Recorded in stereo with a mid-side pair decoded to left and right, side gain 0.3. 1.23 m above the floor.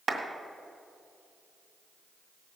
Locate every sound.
0.1 s a clap: 65° right, 2.0 m